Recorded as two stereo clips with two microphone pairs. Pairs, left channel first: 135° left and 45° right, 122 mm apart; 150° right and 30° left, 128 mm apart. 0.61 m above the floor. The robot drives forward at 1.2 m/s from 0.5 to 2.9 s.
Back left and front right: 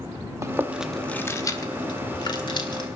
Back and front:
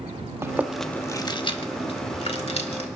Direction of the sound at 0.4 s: 10° right.